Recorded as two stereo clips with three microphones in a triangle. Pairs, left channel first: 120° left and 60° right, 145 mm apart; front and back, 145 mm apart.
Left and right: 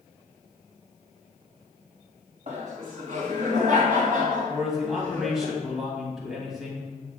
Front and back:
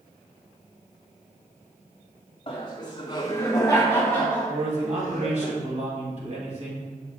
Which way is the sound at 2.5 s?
45° right.